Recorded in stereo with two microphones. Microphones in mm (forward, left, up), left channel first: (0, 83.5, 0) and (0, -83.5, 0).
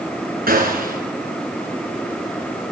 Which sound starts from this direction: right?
A gunshot, at 0.5 s.